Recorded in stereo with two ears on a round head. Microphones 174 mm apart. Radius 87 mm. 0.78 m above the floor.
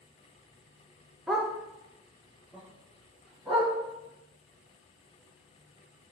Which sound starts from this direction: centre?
A dog barking, at 1.3 s.